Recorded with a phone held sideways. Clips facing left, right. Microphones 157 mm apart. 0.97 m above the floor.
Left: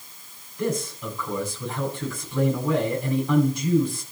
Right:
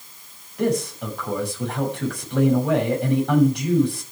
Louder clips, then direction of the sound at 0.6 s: Right 5 dB; 65° right (ahead or behind).